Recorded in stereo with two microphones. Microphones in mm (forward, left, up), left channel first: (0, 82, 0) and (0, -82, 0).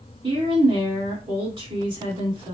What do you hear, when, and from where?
0.2 s a woman speaking: 30° right (ahead or behind), 2 m